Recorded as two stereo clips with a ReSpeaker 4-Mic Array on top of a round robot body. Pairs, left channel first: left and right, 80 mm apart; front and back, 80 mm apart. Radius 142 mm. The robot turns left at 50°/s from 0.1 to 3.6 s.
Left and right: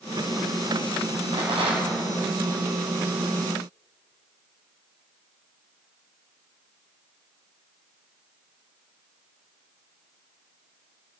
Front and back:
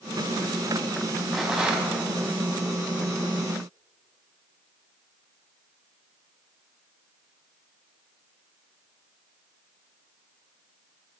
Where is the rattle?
90° right, 5 m; by 2.0 s 120° right, 5 m.